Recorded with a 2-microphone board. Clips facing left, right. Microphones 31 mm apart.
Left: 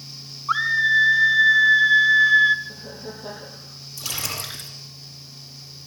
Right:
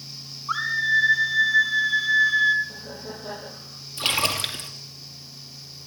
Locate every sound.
0.5 s a scream: 20° left (ahead or behind), 1.2 m
2.6 s laughter: 10° left (ahead or behind), 6.5 m
4.0 s a splash: 50° right (ahead or behind), 4.5 m